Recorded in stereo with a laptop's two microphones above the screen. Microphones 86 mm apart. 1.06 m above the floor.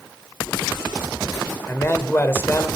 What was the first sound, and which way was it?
A man speaking, 25° left (ahead or behind).